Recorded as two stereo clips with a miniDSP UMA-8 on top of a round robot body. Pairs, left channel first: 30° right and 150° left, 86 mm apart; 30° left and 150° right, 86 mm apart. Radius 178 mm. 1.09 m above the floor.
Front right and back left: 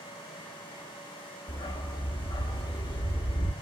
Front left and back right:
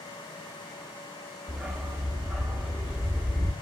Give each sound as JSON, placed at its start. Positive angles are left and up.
{"t": 1.5, "sound": "a dog barking", "azimuth_deg": -65, "distance_m": 0.9}